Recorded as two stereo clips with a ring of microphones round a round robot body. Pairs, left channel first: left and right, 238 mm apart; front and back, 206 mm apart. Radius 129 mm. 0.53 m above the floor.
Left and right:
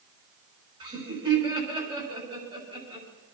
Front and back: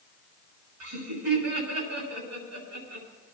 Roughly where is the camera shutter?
I don't hear a camera shutter.